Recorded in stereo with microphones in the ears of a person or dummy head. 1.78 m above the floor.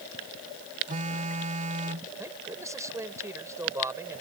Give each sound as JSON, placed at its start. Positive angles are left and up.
{"t": 0.9, "sound": "a phone buzzing", "side_deg": -40}
{"t": 2.2, "sound": "a man speaking", "side_deg": -10}